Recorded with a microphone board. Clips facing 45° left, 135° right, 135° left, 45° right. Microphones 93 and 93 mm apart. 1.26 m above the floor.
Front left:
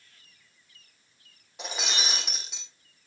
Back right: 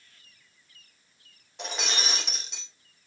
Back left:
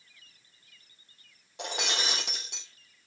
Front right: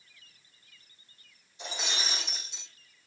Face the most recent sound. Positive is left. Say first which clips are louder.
# back right 1 dB, back left 4 dB
turn(degrees=135)